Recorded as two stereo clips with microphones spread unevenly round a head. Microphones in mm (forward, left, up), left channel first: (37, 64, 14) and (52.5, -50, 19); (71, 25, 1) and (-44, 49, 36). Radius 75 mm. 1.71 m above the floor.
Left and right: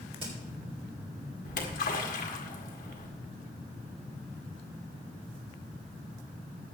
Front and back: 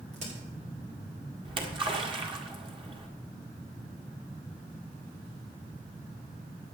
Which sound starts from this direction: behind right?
A crack, at 0.1 s.